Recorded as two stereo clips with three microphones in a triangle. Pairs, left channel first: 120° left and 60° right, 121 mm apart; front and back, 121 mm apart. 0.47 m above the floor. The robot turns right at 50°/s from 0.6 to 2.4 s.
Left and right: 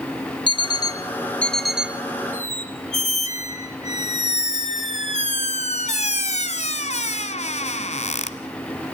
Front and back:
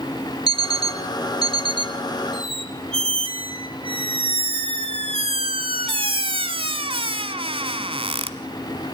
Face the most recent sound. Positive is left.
turn(degrees=140)